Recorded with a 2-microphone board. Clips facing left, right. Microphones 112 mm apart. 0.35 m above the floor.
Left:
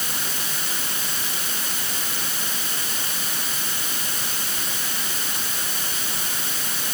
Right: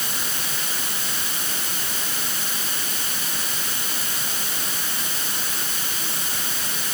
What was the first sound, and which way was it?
Only background noise.